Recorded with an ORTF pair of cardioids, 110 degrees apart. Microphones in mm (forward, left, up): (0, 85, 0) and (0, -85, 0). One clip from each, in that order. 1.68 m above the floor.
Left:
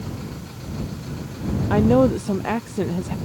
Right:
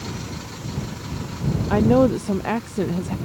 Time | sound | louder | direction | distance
1.7 | a woman speaking | even | straight ahead | ?